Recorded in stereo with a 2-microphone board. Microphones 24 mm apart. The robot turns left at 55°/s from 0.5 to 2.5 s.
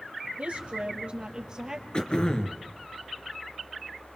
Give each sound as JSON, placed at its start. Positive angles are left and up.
{"t": 0.4, "sound": "a woman speaking", "azimuth_deg": -90, "distance_m": 3.0}
{"t": 1.9, "sound": "throat clearing", "azimuth_deg": 105, "distance_m": 2.0}